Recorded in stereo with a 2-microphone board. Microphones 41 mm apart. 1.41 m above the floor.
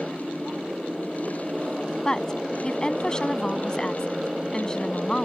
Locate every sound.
0.0 s a motorcycle: 10° right (ahead or behind)
2.0 s a woman speaking: 20° left (ahead or behind)